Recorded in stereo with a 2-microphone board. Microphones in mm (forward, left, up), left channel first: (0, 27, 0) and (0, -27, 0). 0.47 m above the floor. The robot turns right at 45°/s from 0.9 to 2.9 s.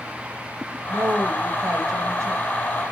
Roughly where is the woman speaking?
Behind right.